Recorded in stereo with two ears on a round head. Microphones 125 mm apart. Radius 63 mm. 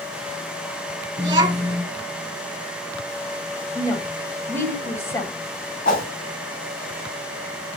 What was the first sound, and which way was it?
A child speaking, 25° right (ahead or behind).